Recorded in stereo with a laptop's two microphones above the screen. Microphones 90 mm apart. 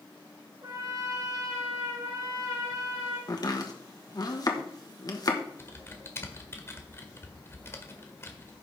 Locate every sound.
0.6 s a trumpet: 50° right (ahead or behind), 3.5 m
3.3 s chopping: 45° left (ahead or behind), 1.1 m
5.6 s typing on a keyboard: 30° left (ahead or behind), 1.6 m